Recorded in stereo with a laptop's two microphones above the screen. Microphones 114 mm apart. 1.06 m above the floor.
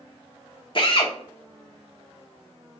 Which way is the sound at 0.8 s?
45° left (ahead or behind).